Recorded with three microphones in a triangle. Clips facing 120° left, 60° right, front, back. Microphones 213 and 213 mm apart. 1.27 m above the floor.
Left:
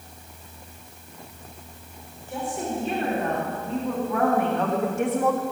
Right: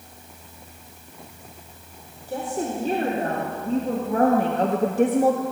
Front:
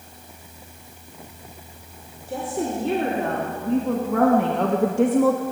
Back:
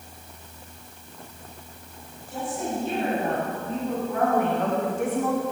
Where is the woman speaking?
10° right, 5 m; by 5.4 s straight ahead, 1.0 m.